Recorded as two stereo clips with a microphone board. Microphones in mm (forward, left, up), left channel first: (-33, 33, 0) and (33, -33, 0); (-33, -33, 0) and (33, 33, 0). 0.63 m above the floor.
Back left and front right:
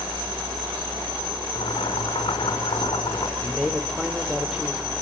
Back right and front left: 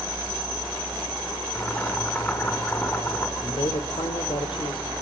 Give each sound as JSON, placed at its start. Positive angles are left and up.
{"t": 1.6, "sound": "boiling", "azimuth_deg": 160, "distance_m": 5.0}
{"t": 3.4, "sound": "a man speaking", "azimuth_deg": -130, "distance_m": 2.0}